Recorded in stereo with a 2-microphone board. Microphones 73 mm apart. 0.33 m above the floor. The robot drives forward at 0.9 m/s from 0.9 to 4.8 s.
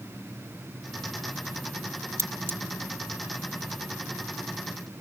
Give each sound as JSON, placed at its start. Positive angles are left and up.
{"t": 2.2, "sound": "cutlery clinking", "side_deg": -40, "distance_m": 0.7}